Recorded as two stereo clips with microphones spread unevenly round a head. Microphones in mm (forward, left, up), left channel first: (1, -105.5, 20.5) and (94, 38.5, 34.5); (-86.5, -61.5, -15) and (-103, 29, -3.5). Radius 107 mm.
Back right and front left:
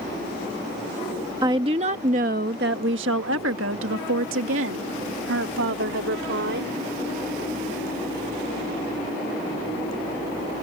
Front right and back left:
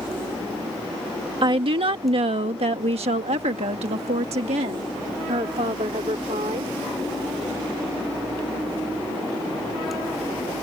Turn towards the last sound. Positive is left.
turn(degrees=50)